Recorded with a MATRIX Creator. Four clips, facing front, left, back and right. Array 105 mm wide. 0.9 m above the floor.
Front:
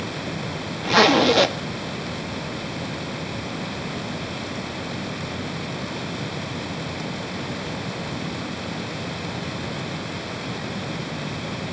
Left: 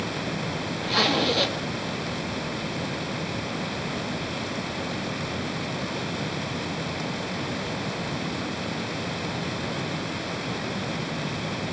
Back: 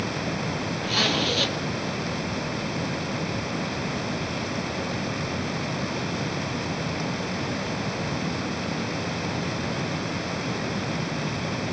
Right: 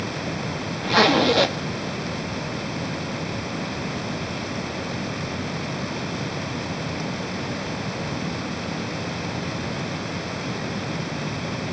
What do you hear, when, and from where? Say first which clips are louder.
0.8 s a zipper: right 7 dB, front 12 dB; 25° right, 1.2 m